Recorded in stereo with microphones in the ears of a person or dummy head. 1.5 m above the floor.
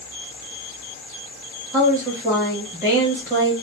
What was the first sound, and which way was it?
A woman speaking, 10° right (ahead or behind).